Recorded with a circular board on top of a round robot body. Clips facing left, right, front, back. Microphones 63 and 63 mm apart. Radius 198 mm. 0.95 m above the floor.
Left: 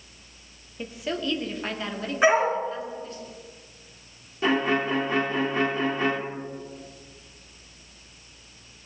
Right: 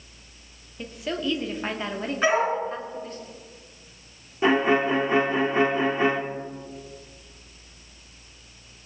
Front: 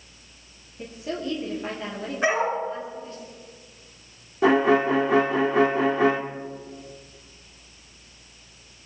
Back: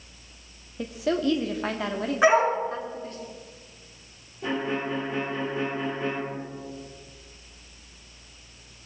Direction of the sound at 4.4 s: 20° right.